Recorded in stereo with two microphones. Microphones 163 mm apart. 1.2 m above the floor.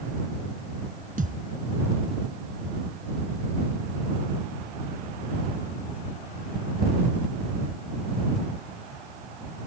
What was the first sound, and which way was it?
A thud, 55° right (ahead or behind).